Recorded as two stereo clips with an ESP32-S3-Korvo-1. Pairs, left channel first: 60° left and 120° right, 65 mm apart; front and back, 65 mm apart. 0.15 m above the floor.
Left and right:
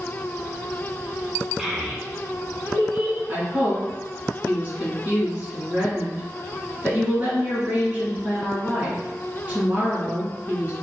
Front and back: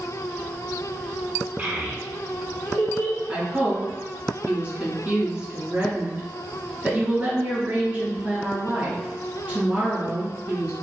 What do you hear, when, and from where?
1.6 s a child speaking: 160° left, 0.8 m; by 3.2 s 85° right, 1.3 m
3.3 s a woman speaking: 145° right, 1.4 m